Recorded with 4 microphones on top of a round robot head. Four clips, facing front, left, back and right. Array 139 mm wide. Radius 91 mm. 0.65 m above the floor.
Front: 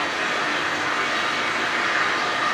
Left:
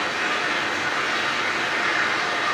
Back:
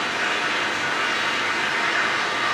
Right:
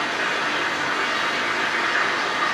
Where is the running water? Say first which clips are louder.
Right 1 dB, even; 65° right, 1.0 m.